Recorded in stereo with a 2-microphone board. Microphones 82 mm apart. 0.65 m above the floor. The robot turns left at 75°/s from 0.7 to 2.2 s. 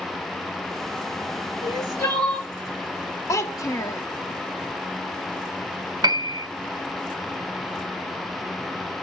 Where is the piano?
60° right (ahead or behind), 0.6 m.